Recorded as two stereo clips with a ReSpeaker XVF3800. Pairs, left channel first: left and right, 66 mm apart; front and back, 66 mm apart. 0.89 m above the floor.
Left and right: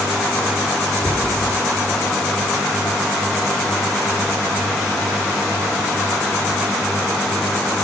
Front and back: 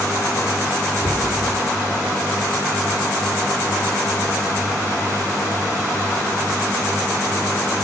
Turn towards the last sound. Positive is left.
turn(degrees=-20)